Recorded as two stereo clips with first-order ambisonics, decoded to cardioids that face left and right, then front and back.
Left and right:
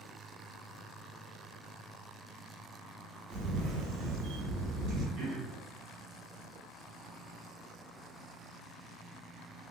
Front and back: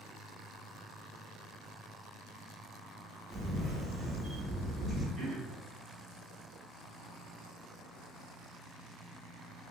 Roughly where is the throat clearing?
Behind right.